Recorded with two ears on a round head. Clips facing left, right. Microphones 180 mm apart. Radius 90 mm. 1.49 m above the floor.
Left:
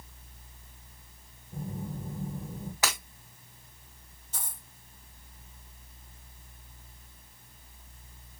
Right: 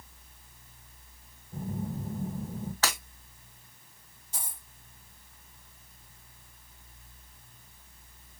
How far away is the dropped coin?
About 1.9 m.